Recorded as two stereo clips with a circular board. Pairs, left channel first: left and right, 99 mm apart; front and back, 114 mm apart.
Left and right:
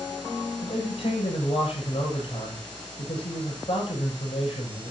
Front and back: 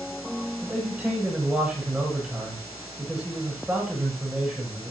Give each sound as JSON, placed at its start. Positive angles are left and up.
{"t": 0.6, "sound": "a man speaking", "azimuth_deg": 105, "distance_m": 9.0}